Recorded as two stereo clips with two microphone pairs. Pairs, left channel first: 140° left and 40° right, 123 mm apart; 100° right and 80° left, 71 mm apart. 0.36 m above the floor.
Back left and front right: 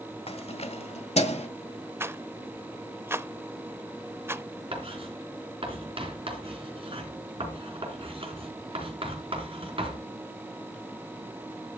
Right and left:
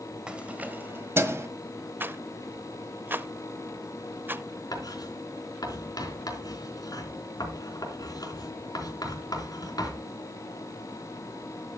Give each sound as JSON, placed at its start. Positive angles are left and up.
{"t": 0.3, "sound": "keys jangling", "azimuth_deg": 160, "distance_m": 1.1}
{"t": 2.0, "sound": "a rattle", "azimuth_deg": 30, "distance_m": 0.6}
{"t": 4.7, "sound": "writing", "azimuth_deg": -80, "distance_m": 3.5}